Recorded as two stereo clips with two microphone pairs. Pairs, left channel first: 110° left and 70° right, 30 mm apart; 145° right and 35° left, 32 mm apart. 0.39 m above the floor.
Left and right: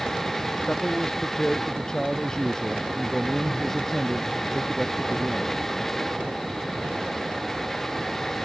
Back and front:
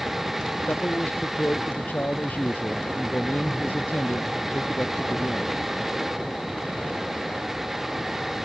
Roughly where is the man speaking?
Behind.